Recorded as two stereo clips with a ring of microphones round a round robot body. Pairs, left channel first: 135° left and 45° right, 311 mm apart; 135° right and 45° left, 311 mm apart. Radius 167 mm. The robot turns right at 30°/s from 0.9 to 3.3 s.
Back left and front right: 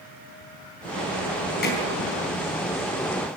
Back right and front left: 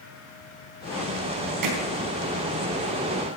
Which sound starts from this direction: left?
Hammering, at 1.6 s.